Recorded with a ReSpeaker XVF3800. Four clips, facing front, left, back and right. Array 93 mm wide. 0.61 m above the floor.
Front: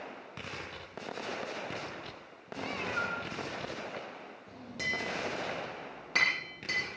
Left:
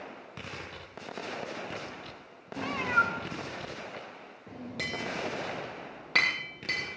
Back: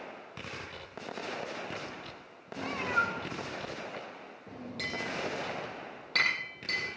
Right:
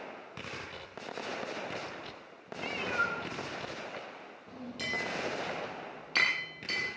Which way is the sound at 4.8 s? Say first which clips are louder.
Even, front 1 dB; 75° left.